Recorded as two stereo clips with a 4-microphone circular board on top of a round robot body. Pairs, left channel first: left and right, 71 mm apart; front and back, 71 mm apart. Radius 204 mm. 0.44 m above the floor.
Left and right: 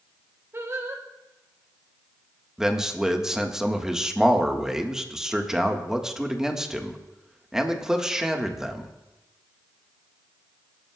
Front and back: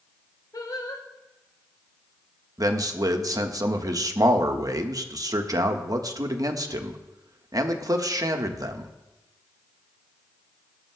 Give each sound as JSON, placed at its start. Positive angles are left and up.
{"t": 0.5, "sound": "singing", "azimuth_deg": -35, "distance_m": 1.7}
{"t": 2.6, "sound": "a man speaking", "azimuth_deg": -170, "distance_m": 1.6}